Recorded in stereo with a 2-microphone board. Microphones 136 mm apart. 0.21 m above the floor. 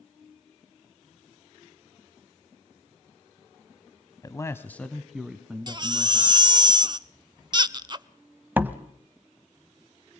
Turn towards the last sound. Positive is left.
turn(degrees=-15)  # may be behind; listen again after turning